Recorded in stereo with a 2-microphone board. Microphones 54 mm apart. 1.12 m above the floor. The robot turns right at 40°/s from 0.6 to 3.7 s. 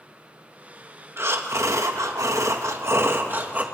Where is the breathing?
130° right, 1.4 m; by 3.6 s 30° right, 1.4 m.